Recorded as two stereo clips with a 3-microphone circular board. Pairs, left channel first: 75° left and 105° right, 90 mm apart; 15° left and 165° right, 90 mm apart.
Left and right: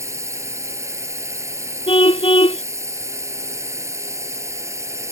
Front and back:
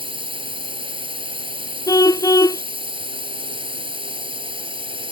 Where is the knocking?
No knocking in this recording.